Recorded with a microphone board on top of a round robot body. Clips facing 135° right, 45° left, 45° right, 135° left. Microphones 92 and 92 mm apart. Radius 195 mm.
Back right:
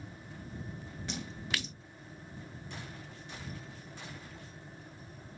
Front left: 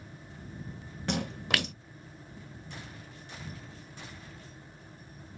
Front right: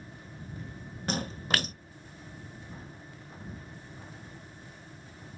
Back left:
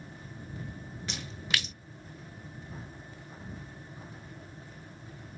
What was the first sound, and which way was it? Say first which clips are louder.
A splash: front left 8 dB, front right 6 dB; 10° left.